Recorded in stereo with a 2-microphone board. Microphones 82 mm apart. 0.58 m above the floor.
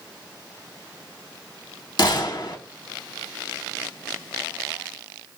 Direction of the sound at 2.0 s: 55° left (ahead or behind).